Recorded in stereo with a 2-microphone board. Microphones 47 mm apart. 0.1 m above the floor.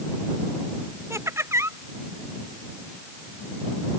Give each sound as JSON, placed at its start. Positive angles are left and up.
{"t": 1.1, "sound": "laughter", "side_deg": -75}